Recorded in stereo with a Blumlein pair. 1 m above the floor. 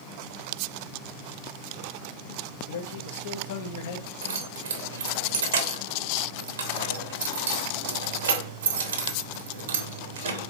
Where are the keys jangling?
65° right, 0.9 m.